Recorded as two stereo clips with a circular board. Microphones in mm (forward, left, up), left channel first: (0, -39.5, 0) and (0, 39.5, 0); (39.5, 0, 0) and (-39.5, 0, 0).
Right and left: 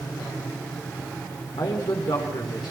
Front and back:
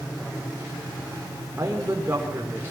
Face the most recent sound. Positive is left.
turn(degrees=-120)